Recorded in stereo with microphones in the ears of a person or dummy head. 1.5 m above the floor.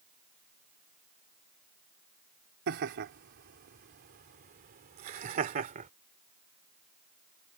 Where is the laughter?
60° right (ahead or behind); by 5.9 s 35° right (ahead or behind).